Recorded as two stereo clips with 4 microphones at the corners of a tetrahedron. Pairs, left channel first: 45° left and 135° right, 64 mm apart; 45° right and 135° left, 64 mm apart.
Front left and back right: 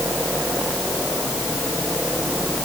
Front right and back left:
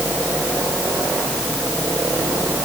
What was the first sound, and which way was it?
Only background noise.